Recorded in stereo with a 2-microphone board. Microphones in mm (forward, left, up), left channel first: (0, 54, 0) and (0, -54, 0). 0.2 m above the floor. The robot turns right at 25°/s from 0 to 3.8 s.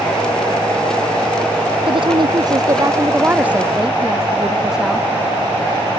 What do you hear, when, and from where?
1.9 s a woman speaking: 55° right; by 5.1 s 5° right